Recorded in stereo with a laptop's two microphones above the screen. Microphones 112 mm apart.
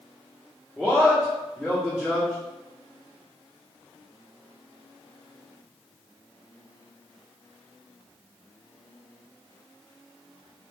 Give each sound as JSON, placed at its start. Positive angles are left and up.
{"t": 0.8, "sound": "a man speaking", "side_deg": -5, "distance_m": 0.9}